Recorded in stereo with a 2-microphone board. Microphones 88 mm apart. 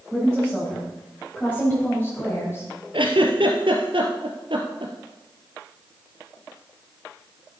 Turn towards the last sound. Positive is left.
turn(degrees=-75)  # may be behind; listen again after turning